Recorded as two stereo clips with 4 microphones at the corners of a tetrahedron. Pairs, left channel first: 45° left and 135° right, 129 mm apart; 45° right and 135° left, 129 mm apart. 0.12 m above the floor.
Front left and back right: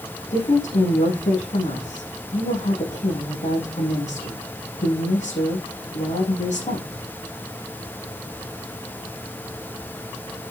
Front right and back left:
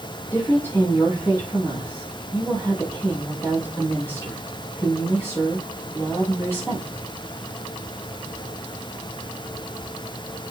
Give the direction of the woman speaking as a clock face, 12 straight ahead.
11 o'clock.